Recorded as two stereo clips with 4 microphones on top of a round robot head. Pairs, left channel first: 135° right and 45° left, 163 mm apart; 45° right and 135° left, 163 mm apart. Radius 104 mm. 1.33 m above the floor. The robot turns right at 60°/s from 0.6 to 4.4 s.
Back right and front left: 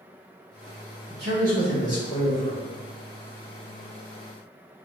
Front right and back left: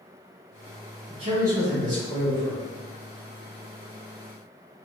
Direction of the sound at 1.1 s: 65° left.